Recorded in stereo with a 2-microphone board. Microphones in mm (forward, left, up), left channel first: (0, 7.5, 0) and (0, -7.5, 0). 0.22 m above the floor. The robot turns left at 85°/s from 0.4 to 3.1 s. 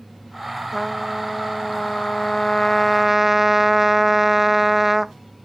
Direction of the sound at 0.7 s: 170° right.